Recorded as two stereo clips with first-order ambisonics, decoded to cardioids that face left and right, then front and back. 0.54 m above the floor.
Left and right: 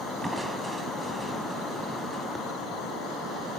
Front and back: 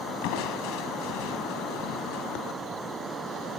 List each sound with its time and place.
0.2 s crushing: 10° right, 2.5 m